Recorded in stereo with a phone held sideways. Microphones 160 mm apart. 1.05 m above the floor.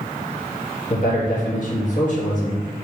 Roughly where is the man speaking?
Left.